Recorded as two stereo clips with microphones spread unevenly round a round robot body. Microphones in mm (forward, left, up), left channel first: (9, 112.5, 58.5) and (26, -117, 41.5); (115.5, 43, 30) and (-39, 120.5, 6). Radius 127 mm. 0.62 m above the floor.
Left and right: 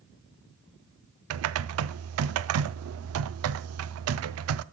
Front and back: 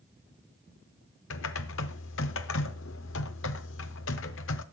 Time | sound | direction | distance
1.3 | typing on a keyboard | 60° right | 0.5 m